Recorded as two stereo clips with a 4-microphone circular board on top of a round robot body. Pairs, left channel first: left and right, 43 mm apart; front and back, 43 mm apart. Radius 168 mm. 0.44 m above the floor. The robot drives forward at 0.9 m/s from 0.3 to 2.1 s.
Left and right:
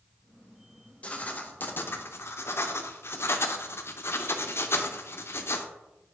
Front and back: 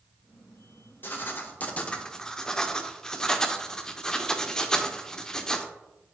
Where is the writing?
35° left, 1.5 m; by 5.7 s 75° left, 0.9 m.